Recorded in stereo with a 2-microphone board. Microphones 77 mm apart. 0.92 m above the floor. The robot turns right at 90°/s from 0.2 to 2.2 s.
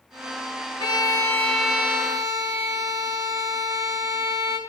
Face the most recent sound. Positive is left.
turn(degrees=-130)